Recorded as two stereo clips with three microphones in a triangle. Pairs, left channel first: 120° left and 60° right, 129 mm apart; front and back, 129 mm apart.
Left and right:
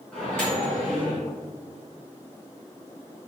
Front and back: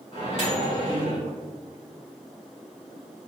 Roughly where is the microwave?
Ahead left.